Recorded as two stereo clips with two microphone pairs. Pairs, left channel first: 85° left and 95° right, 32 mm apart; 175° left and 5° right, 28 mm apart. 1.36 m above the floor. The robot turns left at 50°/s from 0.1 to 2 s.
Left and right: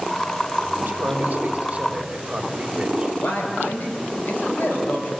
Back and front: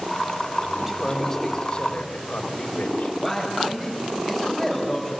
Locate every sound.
0.8 s a man speaking: 85° right, 3 m; by 3.1 s 150° right, 3 m
3.2 s a man speaking: 85° left, 7 m